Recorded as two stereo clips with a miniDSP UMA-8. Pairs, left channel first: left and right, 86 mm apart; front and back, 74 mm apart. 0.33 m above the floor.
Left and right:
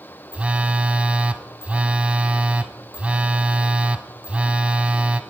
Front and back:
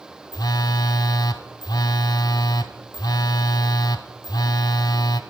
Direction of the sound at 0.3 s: 15° right.